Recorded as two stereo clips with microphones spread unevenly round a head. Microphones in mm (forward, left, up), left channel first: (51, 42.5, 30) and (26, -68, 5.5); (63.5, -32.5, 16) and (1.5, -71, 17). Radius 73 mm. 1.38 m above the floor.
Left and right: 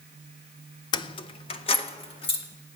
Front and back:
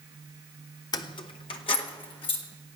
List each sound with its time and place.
0.9 s keys jangling: 60° left, 0.5 m; by 2.4 s 35° left, 2.5 m